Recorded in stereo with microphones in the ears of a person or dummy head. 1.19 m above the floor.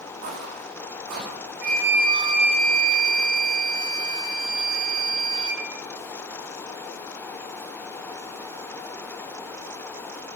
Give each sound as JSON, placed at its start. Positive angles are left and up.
{"t": 0.2, "sound": "footsteps", "side_deg": -45, "distance_m": 5.0}
{"t": 1.6, "sound": "a flute", "side_deg": -45, "distance_m": 5.0}